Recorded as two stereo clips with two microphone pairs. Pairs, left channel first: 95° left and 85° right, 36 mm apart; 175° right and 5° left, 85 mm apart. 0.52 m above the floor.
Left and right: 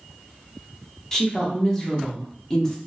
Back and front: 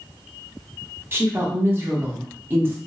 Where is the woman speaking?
40° left, 0.8 m.